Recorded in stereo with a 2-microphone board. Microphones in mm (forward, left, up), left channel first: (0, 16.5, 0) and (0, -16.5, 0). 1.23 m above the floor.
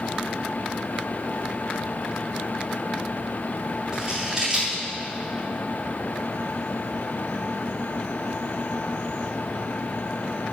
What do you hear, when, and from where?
3.9 s scissors: 25° right (ahead or behind), 4 m